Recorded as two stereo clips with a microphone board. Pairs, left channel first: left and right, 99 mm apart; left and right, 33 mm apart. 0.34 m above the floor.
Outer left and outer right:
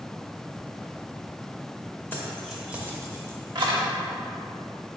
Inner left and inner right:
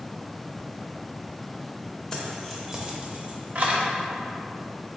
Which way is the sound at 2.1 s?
20° left (ahead or behind).